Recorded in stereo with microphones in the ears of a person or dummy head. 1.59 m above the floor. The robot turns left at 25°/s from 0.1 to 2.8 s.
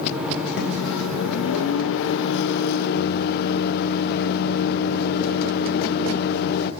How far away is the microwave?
About 0.6 m.